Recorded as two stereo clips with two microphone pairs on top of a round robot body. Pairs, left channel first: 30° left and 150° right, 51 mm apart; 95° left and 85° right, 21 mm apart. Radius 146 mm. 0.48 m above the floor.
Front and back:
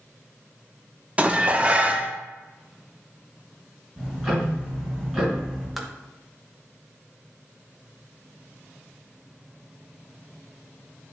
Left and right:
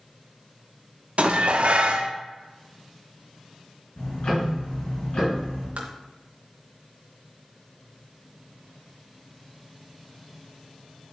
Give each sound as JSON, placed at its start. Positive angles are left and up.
{"t": 1.2, "sound": "dishes clattering", "azimuth_deg": -85, "distance_m": 0.9}
{"t": 4.0, "sound": "ticking", "azimuth_deg": 130, "distance_m": 3.0}
{"t": 5.8, "sound": "tapping", "azimuth_deg": -65, "distance_m": 0.8}